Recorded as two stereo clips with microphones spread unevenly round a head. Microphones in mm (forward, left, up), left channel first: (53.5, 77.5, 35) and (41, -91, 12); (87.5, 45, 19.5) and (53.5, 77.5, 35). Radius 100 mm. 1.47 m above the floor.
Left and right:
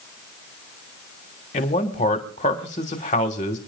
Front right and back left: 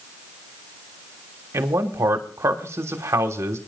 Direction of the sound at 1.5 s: 140° left.